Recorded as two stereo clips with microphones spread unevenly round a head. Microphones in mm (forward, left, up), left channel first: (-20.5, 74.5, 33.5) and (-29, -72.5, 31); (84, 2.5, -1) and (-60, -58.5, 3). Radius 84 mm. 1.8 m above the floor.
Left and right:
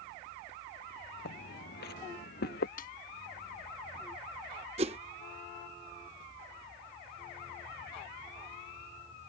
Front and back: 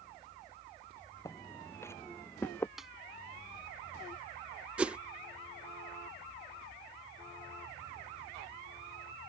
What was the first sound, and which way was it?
Footsteps, 95° left.